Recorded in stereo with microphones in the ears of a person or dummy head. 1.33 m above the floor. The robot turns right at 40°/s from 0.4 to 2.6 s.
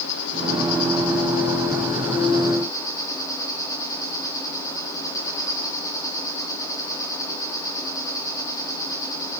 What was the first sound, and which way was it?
An insect, 70° left.